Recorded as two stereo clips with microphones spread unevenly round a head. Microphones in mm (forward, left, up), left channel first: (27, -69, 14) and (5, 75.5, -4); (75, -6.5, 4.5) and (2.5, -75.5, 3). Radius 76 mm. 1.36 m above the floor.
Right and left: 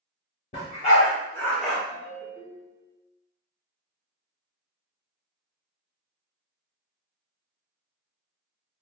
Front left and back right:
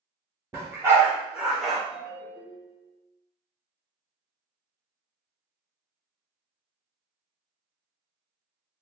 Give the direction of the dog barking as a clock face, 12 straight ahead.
3 o'clock.